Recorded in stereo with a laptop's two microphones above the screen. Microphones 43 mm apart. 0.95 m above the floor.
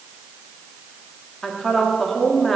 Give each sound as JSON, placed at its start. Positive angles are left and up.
{"t": 1.4, "sound": "a woman speaking", "side_deg": 5, "distance_m": 1.8}